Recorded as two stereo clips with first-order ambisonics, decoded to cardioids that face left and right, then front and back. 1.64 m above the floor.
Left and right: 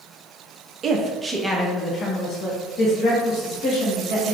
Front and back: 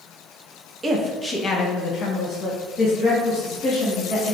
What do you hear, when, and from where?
0.8 s a woman speaking: 115° right, 0.6 m; by 4.3 s 40° left, 1.8 m